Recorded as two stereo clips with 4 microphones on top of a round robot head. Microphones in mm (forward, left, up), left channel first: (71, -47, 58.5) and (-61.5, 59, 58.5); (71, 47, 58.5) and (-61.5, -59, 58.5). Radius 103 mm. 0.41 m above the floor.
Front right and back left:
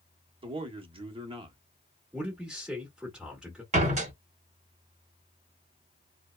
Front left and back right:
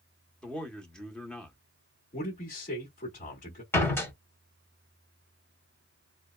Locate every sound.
0.4 s a man speaking: 120° left, 0.9 m
2.1 s a man speaking: 60° left, 1.4 m
3.7 s a door slam: 110° left, 1.2 m